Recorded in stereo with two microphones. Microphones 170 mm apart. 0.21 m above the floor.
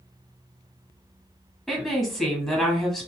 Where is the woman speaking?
Centre (ahead or behind), 1.1 m.